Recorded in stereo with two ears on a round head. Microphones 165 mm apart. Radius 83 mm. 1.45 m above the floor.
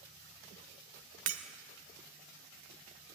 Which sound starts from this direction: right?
Breaking glass, at 1.3 s.